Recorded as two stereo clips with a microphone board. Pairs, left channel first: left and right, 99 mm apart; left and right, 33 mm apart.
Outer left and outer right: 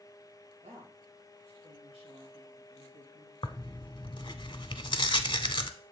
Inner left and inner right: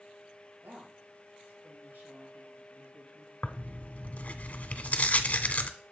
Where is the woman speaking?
75° right (ahead or behind), 4 m; by 3.3 s 65° right (ahead or behind), 3 m.